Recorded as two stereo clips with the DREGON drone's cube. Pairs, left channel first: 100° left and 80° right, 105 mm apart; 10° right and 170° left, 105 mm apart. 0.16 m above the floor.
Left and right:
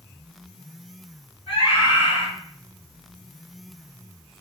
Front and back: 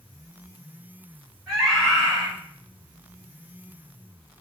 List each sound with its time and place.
1.5 s a scream: 95° left, 2.5 m